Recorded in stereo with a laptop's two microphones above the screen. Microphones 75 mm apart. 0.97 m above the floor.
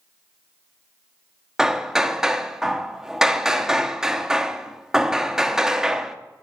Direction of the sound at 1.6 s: 5° right (ahead or behind).